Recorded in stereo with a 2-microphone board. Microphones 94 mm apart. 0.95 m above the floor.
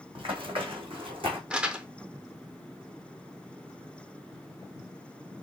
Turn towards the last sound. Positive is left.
turn(degrees=-10)  # may be behind; listen again after turning